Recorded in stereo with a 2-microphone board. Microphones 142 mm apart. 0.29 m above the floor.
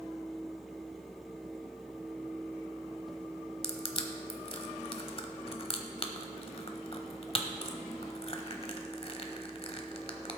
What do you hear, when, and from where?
3.6 s crushing: 45° left (ahead or behind), 1.0 m